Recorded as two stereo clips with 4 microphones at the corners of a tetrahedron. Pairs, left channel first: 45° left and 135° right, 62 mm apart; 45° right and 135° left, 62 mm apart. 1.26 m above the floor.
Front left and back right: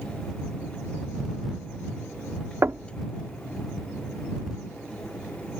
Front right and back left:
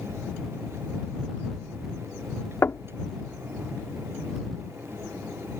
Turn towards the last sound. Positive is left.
turn(degrees=-90)